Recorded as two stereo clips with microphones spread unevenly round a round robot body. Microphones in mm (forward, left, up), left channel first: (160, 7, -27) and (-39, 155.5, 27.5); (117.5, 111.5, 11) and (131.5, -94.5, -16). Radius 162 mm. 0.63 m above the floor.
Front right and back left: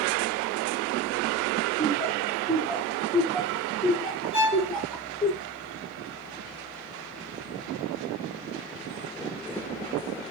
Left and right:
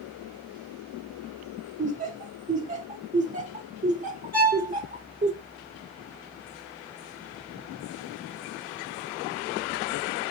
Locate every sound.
1.8 s laughter: 110° right, 0.8 m
4.3 s a violin: 140° right, 1.9 m